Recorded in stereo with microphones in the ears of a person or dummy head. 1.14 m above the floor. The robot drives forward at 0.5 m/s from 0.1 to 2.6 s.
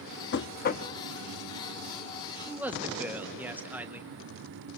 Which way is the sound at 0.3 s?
55° left (ahead or behind).